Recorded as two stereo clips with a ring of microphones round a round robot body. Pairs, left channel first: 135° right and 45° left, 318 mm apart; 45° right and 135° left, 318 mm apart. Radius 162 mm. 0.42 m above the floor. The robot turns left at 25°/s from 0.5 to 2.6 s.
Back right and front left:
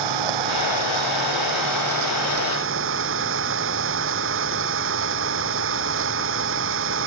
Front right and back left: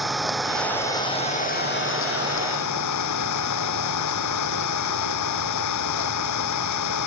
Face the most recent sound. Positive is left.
turn(degrees=-10)